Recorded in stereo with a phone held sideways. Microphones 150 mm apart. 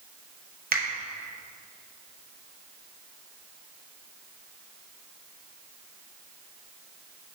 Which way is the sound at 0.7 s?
80° right.